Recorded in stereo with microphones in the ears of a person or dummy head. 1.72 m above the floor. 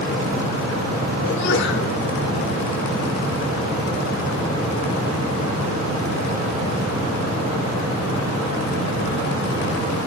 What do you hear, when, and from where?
1.2 s a sneeze: 65° left (ahead or behind), 4.5 m